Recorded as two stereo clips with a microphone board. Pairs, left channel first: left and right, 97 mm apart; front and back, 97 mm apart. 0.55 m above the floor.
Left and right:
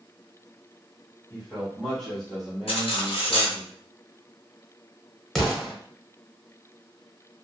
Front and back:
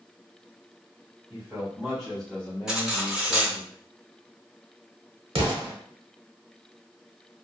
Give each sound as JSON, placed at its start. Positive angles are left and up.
{"t": 1.3, "sound": "a man speaking", "azimuth_deg": 155, "distance_m": 1.1}
{"t": 2.7, "sound": "cutlery clinking", "azimuth_deg": 95, "distance_m": 0.7}
{"t": 5.3, "sound": "an explosion", "azimuth_deg": 175, "distance_m": 0.7}